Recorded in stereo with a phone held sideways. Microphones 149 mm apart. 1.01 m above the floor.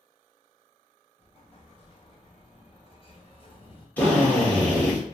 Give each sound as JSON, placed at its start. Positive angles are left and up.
{"t": 1.2, "sound": "an explosion", "side_deg": 40, "distance_m": 0.9}
{"t": 4.0, "sound": "a drill", "side_deg": 10, "distance_m": 1.5}